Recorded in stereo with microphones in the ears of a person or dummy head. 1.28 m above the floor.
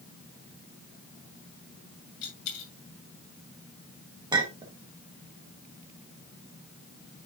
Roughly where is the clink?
Right.